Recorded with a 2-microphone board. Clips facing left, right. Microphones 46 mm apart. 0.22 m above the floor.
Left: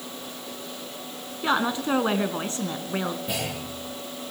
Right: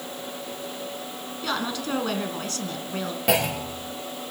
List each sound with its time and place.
1.4 s a woman speaking: 20° left (ahead or behind), 2.5 m
3.3 s a clunk: 85° right, 4.5 m